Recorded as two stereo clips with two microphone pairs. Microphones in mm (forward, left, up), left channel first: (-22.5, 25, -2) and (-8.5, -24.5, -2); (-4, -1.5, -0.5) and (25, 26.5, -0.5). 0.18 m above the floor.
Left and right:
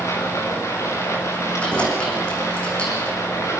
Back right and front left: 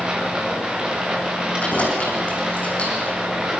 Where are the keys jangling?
170° left, 6.5 m.